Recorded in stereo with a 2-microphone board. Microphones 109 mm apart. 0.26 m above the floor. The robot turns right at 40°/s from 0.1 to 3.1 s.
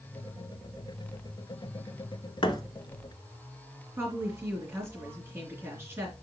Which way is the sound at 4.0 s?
25° right (ahead or behind).